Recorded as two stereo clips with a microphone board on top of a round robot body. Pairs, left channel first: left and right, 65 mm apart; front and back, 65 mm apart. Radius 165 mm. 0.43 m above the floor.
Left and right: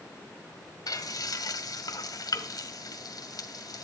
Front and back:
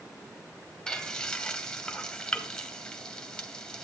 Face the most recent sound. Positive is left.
turn(degrees=75)